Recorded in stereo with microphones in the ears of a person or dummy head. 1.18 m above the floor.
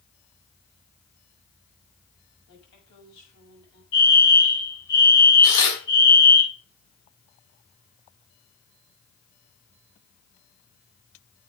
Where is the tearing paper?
75° left (ahead or behind), 5 m.